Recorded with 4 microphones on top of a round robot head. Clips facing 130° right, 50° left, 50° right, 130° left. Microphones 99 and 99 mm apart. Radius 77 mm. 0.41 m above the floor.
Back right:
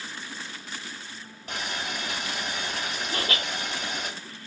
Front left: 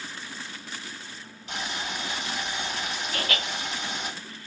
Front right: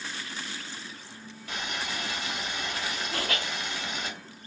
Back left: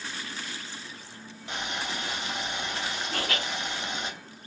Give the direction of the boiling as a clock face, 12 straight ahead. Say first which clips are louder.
Even, back left 1 dB; 6 o'clock.